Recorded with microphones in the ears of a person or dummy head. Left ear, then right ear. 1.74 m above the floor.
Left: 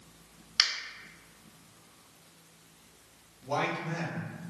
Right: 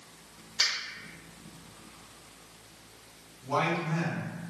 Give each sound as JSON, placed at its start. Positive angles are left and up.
{"t": 0.6, "sound": "a finger snap", "side_deg": 50, "distance_m": 0.7}
{"t": 3.4, "sound": "a man speaking", "side_deg": 60, "distance_m": 1.9}